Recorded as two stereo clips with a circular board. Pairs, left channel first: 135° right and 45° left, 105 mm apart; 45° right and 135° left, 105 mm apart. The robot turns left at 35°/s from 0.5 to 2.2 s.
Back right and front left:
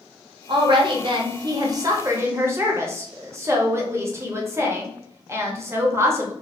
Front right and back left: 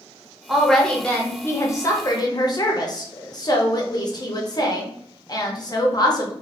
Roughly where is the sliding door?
I don't hear a sliding door.